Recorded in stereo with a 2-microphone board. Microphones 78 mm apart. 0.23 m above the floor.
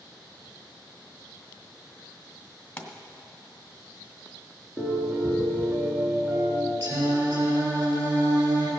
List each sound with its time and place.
2.8 s a pop: 25° left (ahead or behind), 1.3 m
4.8 s a piano: 5° right (ahead or behind), 3 m
6.8 s singing: 35° right (ahead or behind), 5.5 m